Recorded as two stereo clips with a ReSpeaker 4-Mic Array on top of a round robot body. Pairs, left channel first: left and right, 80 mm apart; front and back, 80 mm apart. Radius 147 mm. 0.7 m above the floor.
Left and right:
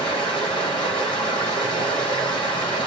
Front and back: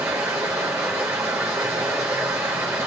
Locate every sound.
0.0 s running water: 115° left, 0.8 m